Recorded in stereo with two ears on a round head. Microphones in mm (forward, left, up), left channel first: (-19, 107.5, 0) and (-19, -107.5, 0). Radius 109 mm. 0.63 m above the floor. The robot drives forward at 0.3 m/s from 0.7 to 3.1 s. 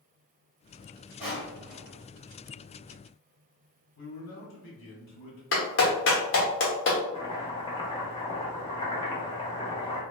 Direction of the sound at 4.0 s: 50° left (ahead or behind).